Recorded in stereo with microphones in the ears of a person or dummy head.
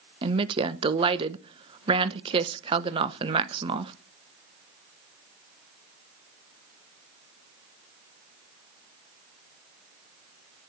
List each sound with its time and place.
0.2 s a woman speaking: 25° right (ahead or behind), 1.1 m